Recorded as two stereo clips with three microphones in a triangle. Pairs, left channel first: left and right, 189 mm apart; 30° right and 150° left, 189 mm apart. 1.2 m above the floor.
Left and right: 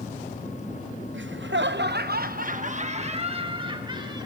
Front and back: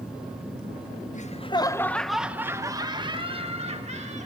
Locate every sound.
1.1 s laughter: 80° right, 0.8 m; by 4.3 s 155° right, 1.8 m